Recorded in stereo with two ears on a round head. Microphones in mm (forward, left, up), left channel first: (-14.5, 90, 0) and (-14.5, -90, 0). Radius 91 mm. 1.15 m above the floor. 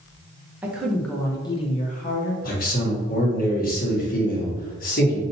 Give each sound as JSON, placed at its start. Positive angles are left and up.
{"t": 0.6, "sound": "a woman speaking", "side_deg": -10, "distance_m": 0.9}
{"t": 2.4, "sound": "a man speaking", "side_deg": 50, "distance_m": 1.3}